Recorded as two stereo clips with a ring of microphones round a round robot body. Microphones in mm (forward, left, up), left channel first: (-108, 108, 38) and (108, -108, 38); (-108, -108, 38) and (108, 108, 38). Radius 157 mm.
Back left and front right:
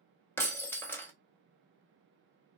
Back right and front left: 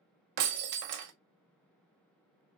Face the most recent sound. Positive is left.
turn(degrees=50)